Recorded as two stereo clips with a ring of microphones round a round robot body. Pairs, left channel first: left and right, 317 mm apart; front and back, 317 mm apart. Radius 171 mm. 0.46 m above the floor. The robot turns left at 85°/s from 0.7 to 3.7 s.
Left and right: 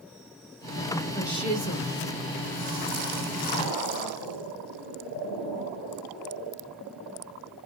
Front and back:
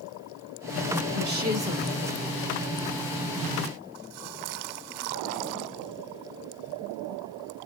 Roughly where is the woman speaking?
Behind.